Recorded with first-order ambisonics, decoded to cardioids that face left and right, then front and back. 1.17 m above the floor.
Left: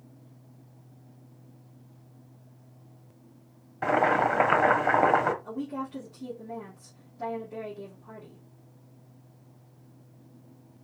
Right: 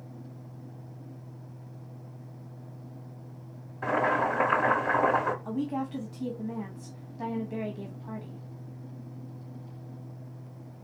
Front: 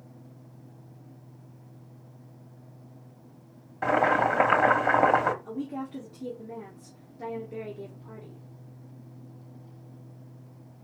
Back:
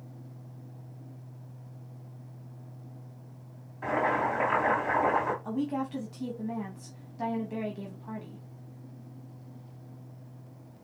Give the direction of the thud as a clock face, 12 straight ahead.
I don't hear a thud.